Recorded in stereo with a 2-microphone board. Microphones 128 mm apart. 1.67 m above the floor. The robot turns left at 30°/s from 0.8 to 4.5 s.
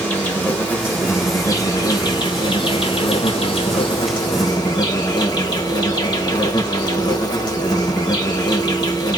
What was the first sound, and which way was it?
An insect, 160° left.